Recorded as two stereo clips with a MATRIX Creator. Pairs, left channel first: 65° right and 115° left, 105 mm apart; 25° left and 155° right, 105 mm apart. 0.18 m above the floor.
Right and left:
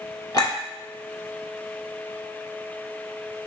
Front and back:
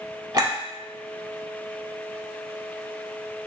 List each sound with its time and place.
0.3 s a clink: 120° right, 1.1 m